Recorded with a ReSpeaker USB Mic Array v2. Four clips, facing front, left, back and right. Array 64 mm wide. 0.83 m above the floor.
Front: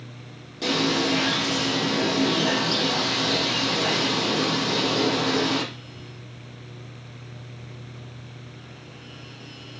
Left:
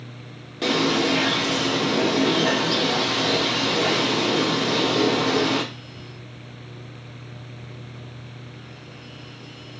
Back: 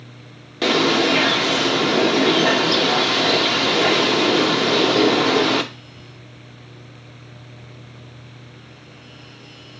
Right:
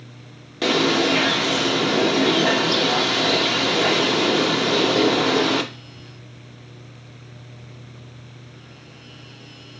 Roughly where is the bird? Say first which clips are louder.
Right 2 dB, back 6 dB; behind right.